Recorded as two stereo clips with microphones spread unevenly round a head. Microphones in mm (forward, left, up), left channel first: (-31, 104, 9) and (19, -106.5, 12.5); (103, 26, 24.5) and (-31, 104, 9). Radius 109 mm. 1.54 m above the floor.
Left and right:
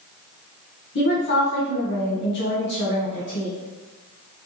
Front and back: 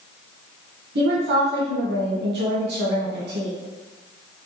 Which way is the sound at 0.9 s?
145° left.